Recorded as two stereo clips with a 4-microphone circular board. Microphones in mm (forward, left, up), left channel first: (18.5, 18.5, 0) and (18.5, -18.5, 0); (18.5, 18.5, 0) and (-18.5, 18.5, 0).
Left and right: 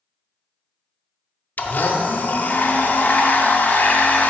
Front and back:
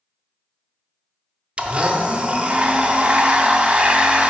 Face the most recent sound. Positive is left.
turn(degrees=120)